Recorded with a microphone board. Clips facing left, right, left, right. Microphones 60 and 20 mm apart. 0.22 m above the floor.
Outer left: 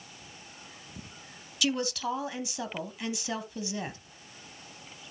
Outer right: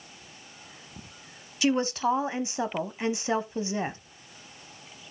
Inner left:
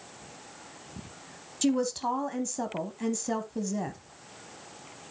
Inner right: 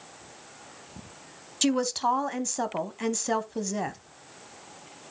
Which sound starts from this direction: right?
A woman speaking, at 1.6 s.